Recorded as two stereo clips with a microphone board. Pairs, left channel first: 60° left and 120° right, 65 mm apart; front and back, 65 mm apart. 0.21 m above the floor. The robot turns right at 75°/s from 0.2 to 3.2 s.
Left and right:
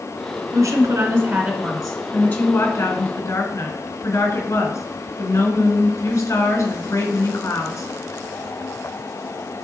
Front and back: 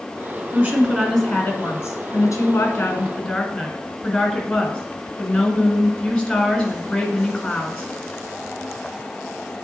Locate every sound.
0.5 s a woman speaking: 135° right, 1.8 m; by 7.9 s 65° left, 1.8 m